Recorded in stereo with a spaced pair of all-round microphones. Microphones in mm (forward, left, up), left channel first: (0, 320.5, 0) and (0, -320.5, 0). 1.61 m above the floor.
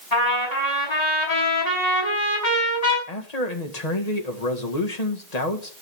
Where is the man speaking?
75° left (ahead or behind), 2 m.